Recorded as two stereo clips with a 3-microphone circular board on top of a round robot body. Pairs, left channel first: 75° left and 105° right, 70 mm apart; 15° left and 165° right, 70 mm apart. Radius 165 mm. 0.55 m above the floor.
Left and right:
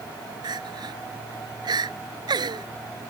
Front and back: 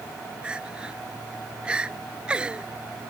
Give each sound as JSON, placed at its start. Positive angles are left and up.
{"t": 0.4, "sound": "crying", "azimuth_deg": -85}